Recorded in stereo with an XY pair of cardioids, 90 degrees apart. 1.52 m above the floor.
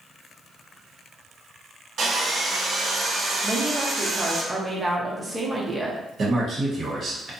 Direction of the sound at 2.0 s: 65° right.